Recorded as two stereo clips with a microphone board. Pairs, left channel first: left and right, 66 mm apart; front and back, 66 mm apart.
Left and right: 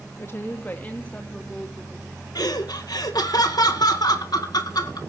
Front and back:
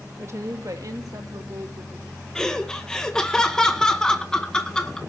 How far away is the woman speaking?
About 1.6 m.